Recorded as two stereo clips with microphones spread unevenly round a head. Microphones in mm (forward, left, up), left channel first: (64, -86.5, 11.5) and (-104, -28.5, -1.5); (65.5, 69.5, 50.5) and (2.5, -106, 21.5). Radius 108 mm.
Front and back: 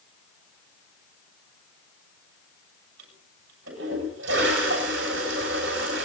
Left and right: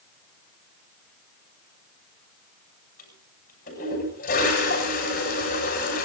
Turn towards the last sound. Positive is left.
turn(degrees=120)